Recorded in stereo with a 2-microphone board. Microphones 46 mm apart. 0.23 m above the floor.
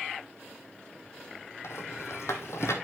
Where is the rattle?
80° left, 2 m.